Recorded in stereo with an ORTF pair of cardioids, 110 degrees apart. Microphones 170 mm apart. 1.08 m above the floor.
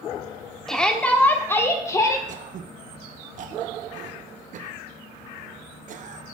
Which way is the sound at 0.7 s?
5° left.